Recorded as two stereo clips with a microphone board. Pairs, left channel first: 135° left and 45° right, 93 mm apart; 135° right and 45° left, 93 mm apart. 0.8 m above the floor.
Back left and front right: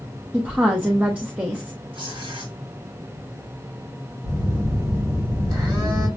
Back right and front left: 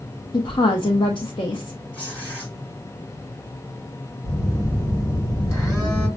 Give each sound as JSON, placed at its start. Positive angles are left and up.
{"t": 0.3, "sound": "a woman speaking", "azimuth_deg": -120, "distance_m": 0.6}
{"t": 1.9, "sound": "tearing paper", "azimuth_deg": -65, "distance_m": 2.5}
{"t": 4.2, "sound": "a phone buzzing", "azimuth_deg": -80, "distance_m": 2.5}